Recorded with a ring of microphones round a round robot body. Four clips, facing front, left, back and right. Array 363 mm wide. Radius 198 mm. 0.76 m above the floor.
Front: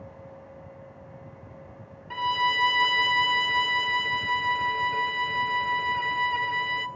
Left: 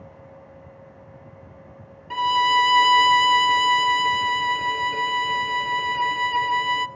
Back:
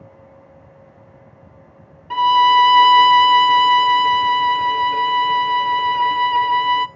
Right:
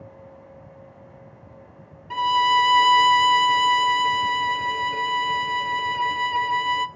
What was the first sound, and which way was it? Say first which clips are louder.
A violin: even, back 14 dB; 170° left.